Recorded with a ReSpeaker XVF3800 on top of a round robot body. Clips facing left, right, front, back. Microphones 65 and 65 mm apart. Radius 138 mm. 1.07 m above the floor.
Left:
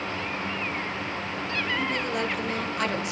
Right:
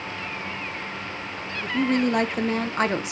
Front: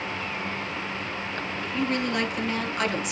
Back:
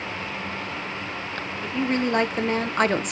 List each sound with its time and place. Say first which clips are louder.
1.6 s a woman speaking: right 8 dB, back 3 dB; 115° right, 1.5 m; by 3.1 s 155° right, 0.6 m